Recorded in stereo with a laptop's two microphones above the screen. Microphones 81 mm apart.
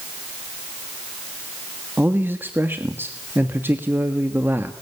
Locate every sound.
2.0 s a man speaking: 25° right (ahead or behind), 1.4 m